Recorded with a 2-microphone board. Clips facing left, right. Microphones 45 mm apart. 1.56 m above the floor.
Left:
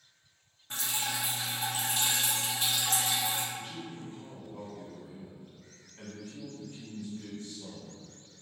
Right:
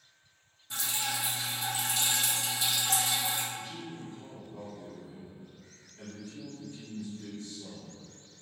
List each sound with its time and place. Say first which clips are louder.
0.7 s dripping: even; 40° left (ahead or behind), 0.9 m
3.5 s a man speaking: even; 50° left (ahead or behind), 1.7 m